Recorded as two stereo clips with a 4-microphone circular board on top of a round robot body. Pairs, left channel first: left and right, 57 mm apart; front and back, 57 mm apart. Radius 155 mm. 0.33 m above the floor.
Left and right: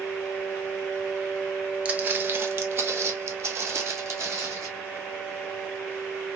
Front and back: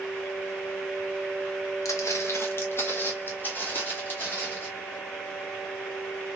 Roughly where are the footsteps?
Ahead right.